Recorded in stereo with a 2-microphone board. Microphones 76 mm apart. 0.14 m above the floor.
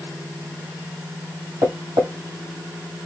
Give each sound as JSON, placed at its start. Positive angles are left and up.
{"t": 1.6, "sound": "tapping", "side_deg": -60, "distance_m": 2.5}